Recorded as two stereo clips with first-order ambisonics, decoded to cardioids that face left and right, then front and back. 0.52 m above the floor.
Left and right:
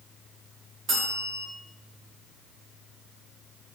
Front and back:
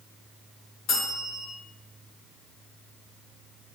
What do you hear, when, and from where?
0.9 s a bell: 40° right, 1.7 m